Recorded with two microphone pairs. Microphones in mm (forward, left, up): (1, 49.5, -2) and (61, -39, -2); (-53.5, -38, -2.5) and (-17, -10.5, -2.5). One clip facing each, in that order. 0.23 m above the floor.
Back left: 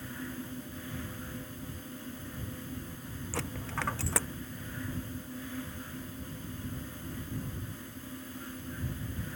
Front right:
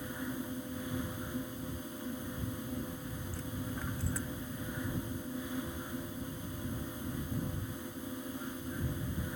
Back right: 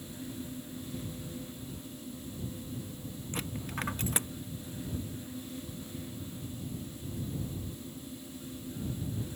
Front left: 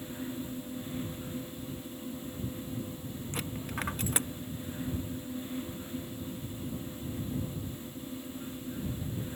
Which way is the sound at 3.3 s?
125° left.